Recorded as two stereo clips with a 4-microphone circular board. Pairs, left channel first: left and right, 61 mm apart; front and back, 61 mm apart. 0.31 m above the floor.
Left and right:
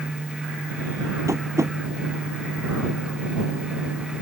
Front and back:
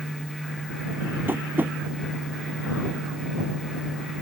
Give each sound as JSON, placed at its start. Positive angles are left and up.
{"t": 1.3, "sound": "tapping", "azimuth_deg": -125}